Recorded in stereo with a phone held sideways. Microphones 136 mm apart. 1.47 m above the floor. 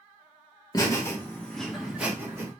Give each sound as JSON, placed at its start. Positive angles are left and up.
{"t": 0.7, "sound": "laughter", "side_deg": 30, "distance_m": 1.2}